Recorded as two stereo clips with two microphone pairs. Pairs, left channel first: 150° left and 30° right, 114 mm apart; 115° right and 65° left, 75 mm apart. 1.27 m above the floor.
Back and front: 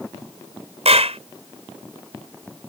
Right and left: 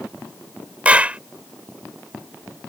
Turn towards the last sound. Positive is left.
turn(degrees=-5)